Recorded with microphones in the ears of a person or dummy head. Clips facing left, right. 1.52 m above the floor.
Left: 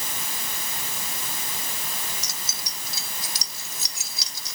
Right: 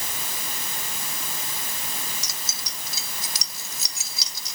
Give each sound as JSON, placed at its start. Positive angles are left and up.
{"t": 2.2, "sound": "keys jangling", "side_deg": -65}